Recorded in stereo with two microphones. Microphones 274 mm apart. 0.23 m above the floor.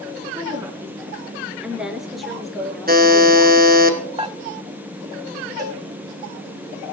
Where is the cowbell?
35° right (ahead or behind), 3 m.